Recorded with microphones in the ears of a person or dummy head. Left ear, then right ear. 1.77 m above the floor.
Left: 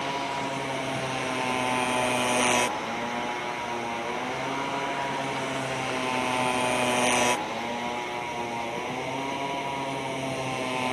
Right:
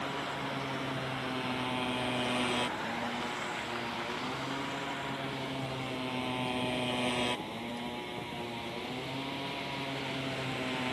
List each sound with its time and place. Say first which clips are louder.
0.0 s a motorcycle: left 7 dB; 35° left (ahead or behind)